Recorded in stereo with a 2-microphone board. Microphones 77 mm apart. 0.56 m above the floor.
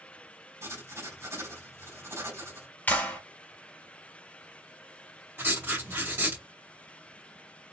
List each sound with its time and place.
0.6 s writing: 40° right (ahead or behind), 3 m
2.9 s a clap: 20° left (ahead or behind), 1.8 m
5.4 s writing: 30° right (ahead or behind), 2.5 m